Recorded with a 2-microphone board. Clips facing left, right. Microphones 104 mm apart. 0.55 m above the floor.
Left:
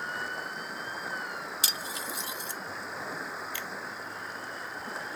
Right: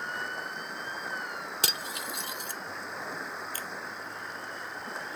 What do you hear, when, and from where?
0.0 s running water: centre (ahead or behind)
1.6 s cutlery clinking: 60° right (ahead or behind)
3.5 s a finger snap: 40° right (ahead or behind)